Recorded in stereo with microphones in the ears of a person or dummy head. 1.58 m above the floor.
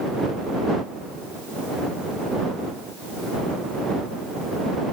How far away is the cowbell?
I don't hear a cowbell.